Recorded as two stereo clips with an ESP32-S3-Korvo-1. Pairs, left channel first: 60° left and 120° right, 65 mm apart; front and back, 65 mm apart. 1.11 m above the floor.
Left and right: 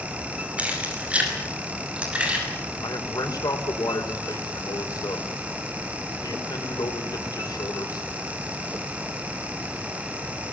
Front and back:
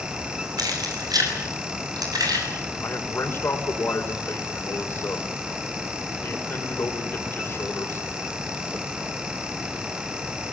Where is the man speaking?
50° left, 4 m.